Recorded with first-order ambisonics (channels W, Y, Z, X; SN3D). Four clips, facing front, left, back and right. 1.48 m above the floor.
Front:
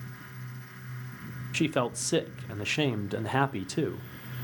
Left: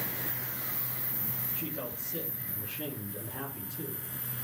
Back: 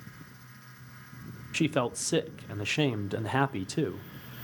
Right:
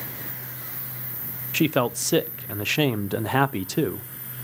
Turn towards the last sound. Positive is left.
turn(degrees=-90)